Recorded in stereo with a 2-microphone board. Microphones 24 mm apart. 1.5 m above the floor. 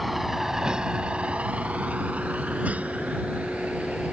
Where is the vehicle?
Centre (ahead or behind); by 4.1 s 75° right (ahead or behind).